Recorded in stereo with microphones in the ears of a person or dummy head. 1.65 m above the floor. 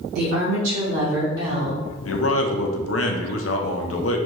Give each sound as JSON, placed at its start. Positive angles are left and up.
{"t": 0.1, "sound": "a woman speaking", "side_deg": -50, "distance_m": 0.6}
{"t": 2.0, "sound": "a man speaking", "side_deg": 80, "distance_m": 0.6}